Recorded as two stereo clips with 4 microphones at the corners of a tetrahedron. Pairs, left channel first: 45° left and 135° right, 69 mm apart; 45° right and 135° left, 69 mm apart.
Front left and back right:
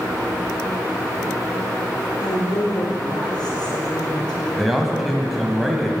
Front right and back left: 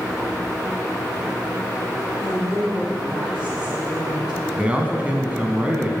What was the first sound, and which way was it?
A woman speaking, 55° left.